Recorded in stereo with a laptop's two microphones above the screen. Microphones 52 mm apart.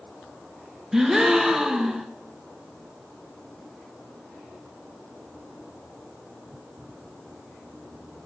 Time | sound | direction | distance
0.9 | a gasp | 10° right (ahead or behind) | 1.1 m